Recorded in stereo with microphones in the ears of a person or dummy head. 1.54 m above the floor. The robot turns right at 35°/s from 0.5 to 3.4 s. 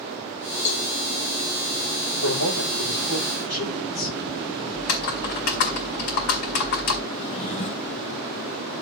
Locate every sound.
0.7 s a cowbell: 35° left (ahead or behind), 1.1 m; by 0.9 s 40° left (ahead or behind), 1.1 m
2.2 s a man speaking: 85° left, 8.5 m; by 4.6 s 45° left (ahead or behind), 8.5 m
4.7 s typing on a keyboard: 50° left (ahead or behind), 2.5 m
7.1 s a drawer: 25° left (ahead or behind), 1.2 m